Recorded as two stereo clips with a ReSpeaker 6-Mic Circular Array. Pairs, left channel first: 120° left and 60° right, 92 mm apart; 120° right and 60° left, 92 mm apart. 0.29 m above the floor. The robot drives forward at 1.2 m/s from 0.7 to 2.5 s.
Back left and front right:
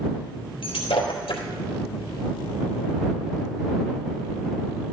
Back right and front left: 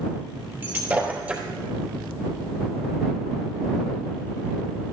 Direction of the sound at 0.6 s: 125° left.